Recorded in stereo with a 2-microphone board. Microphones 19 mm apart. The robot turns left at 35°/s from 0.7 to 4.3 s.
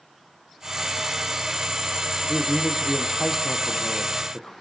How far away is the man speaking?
About 3.5 m.